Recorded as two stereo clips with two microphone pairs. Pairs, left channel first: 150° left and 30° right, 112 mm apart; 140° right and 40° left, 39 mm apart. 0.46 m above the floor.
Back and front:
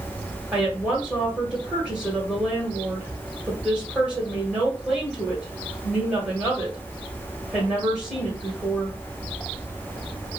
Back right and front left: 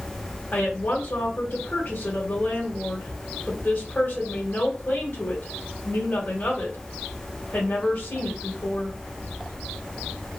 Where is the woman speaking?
110° right, 1.5 m.